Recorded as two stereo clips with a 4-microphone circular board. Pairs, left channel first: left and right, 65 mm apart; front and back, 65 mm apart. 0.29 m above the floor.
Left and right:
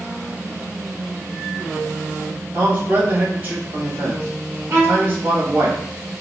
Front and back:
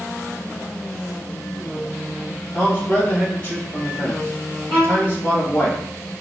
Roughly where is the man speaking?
Ahead right.